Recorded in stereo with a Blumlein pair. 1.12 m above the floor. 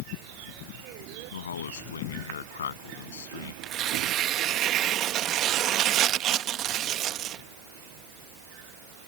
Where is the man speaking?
65° left.